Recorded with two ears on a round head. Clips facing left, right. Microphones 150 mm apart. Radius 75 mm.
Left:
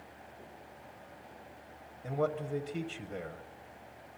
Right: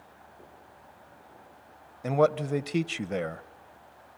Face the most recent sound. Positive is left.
turn(degrees=-75)  # may be behind; listen again after turning